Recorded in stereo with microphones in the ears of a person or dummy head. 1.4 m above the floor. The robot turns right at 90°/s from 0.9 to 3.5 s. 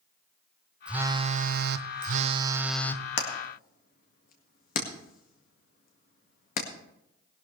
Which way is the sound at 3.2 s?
80° left.